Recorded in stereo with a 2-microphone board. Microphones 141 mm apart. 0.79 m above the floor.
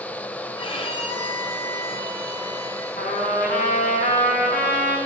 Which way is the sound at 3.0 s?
85° left.